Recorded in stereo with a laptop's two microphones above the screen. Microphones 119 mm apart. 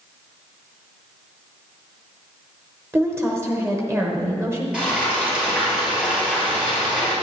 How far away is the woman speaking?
About 1.0 m.